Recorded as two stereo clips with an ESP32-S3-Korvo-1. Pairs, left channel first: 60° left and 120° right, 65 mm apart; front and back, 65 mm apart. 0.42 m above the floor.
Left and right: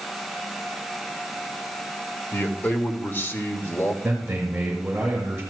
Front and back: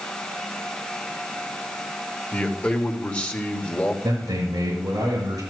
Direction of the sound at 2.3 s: 55° left.